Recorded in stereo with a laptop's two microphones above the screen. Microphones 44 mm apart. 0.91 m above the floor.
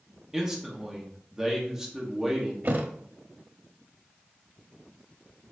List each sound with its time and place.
0.3 s a man speaking: 15° right (ahead or behind), 0.9 m
2.6 s a thud: 45° right (ahead or behind), 0.7 m